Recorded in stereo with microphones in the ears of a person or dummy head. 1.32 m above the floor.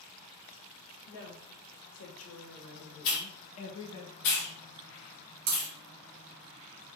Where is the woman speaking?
80° left, 1.6 m; by 4.0 s 20° left (ahead or behind), 0.8 m.